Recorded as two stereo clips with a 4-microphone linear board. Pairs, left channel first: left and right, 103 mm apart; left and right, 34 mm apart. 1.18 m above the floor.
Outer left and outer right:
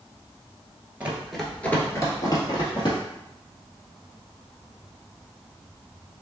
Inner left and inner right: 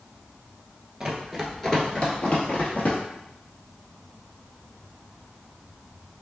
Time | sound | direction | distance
1.0 | running footsteps | 15° right (ahead or behind) | 1.2 m